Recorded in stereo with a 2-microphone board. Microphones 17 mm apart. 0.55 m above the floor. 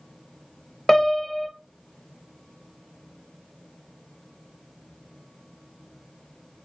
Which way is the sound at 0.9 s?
30° left (ahead or behind).